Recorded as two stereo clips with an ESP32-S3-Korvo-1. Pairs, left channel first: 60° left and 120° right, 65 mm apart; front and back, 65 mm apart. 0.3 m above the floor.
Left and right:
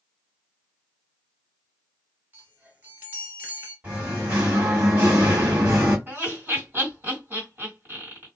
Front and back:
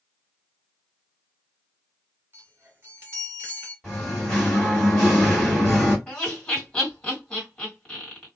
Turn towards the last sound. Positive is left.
turn(degrees=-70)